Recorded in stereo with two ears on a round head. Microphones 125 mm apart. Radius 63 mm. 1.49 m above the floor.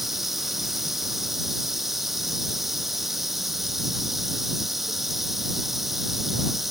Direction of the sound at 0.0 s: Centre (ahead or behind).